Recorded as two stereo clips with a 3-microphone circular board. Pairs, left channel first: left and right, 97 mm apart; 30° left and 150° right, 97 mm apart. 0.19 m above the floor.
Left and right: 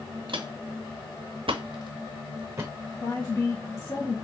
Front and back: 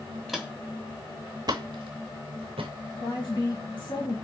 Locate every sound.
0.3 s footsteps: 60° right, 0.8 m; by 2.7 s 150° right, 1.0 m
3.0 s a woman speaking: 45° left, 3 m